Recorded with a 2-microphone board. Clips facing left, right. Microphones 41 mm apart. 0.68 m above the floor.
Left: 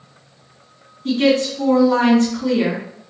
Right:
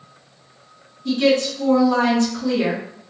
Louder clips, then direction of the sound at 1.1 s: Left 1 dB; 45° left (ahead or behind).